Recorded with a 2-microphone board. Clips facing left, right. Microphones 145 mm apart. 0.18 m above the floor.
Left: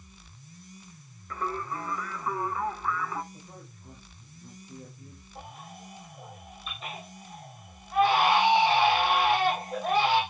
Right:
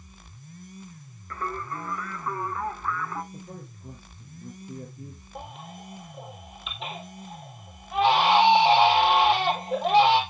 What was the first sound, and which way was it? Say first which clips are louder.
Singing: even; centre (ahead or behind).